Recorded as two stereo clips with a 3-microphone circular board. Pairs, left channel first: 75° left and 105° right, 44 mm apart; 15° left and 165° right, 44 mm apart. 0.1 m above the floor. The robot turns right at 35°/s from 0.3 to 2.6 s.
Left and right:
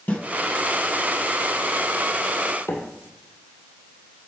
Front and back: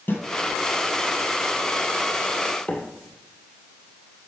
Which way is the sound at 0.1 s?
35° left.